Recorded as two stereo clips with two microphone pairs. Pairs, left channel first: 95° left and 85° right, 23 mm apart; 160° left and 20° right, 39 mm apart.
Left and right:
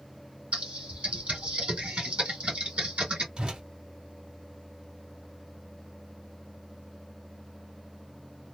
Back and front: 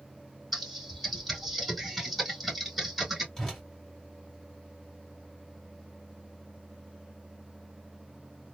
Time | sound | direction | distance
0.5 | typing on a keyboard | 115° right | 2.5 m
3.4 | a whoosh | 130° right | 1.9 m